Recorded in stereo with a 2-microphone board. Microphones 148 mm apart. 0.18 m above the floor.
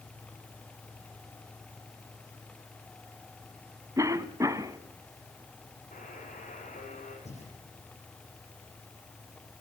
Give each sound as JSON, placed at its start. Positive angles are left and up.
{"t": 4.0, "sound": "a cough", "side_deg": -20, "distance_m": 1.1}
{"t": 5.9, "sound": "a buzzer", "side_deg": 60, "distance_m": 6.5}
{"t": 7.2, "sound": "breathing", "side_deg": 50, "distance_m": 7.5}